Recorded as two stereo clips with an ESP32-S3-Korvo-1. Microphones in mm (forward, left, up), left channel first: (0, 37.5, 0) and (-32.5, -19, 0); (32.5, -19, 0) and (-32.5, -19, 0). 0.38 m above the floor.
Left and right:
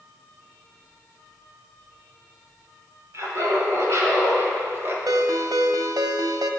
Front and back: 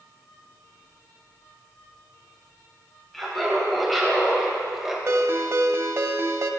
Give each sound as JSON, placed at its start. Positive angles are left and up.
{"t": 3.1, "sound": "laughter", "azimuth_deg": -85, "distance_m": 3.0}
{"t": 5.1, "sound": "a ringtone", "azimuth_deg": -135, "distance_m": 0.6}